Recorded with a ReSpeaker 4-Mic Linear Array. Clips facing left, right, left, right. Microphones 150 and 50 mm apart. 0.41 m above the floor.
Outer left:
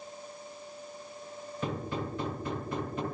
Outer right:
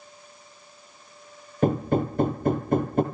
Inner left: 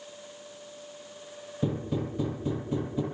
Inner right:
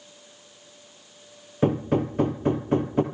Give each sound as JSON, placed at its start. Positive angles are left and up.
{"t": 1.6, "sound": "hammering", "side_deg": -50, "distance_m": 3.0}